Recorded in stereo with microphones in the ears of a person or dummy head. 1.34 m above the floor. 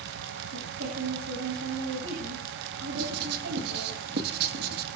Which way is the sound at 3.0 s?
60° right (ahead or behind).